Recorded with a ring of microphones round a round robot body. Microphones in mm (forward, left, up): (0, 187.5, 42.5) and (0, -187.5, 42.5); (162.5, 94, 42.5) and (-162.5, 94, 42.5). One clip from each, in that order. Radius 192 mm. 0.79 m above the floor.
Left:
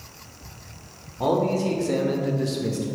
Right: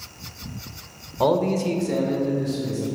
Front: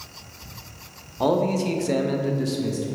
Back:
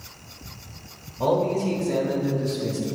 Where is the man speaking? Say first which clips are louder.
Right 2 dB, even; 55° right, 0.8 m; by 2.9 s 60° left, 1.0 m.